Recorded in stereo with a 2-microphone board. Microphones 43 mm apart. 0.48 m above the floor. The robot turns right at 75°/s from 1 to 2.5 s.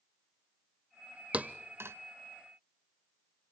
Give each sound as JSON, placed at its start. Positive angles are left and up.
{"t": 1.3, "sound": "a thud", "side_deg": -30, "distance_m": 0.6}